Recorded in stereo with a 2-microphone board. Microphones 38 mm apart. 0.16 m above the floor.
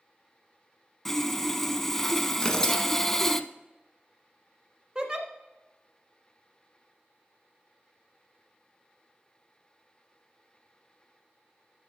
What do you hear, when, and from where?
1.1 s sawing: 10° left (ahead or behind), 0.6 m
2.4 s tearing paper: 15° left (ahead or behind), 1.4 m
5.0 s a giggle: 20° right (ahead or behind), 1.3 m